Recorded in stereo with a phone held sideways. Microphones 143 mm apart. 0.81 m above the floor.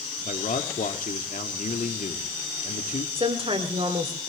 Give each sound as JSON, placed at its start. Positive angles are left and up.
{"t": 0.2, "sound": "a man speaking", "side_deg": 65, "distance_m": 1.4}
{"t": 3.1, "sound": "a woman speaking", "side_deg": -40, "distance_m": 2.5}